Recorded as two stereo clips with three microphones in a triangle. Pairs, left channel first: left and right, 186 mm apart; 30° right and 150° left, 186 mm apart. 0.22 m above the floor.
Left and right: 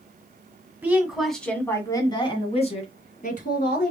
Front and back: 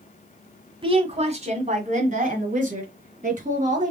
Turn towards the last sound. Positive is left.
turn(degrees=115)